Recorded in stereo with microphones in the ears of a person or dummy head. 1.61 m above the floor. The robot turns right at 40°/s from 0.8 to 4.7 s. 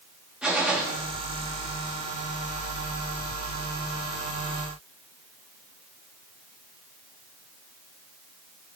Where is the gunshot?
Centre (ahead or behind), 0.9 m.